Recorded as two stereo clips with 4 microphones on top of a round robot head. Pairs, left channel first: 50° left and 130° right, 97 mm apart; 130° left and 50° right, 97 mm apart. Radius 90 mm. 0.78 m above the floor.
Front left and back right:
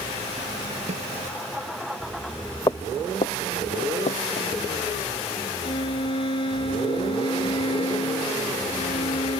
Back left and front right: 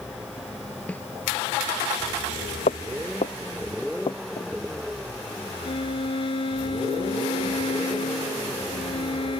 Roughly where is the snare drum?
Behind right.